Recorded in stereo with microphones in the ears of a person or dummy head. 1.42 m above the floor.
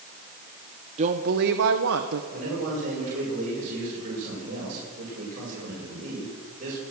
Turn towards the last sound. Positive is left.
turn(degrees=-45)  # may be behind; listen again after turning